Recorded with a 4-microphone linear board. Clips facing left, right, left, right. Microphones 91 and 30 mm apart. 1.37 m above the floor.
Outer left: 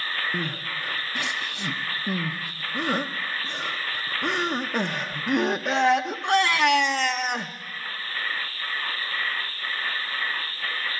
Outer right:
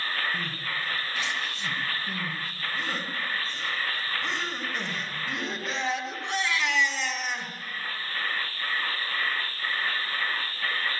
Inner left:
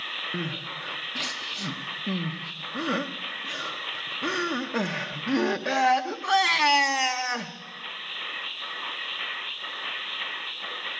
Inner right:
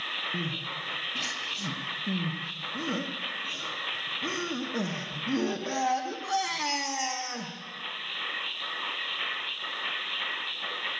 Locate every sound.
0.3 s crying: 60° left (ahead or behind), 0.7 m